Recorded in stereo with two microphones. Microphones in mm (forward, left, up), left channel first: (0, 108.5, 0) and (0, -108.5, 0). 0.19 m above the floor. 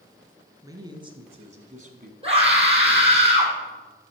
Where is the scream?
25° right (ahead or behind), 5 m.